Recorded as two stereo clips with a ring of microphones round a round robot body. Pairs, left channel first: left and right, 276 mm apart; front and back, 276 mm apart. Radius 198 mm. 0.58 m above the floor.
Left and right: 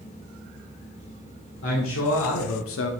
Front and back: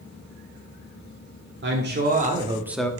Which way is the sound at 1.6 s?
135° left.